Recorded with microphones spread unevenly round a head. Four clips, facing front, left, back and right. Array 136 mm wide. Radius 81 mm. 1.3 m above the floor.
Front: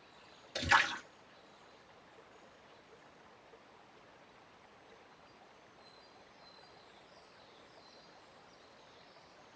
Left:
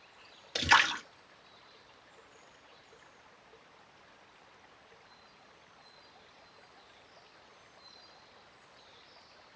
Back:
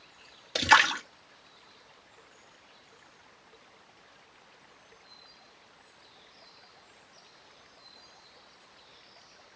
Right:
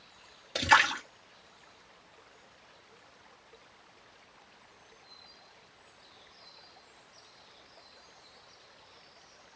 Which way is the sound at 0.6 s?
175° right.